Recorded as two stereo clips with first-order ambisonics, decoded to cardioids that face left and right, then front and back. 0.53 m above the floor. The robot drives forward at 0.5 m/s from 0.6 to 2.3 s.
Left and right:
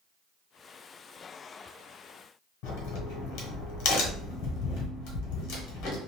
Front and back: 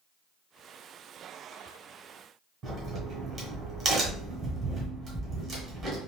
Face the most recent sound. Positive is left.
turn(degrees=115)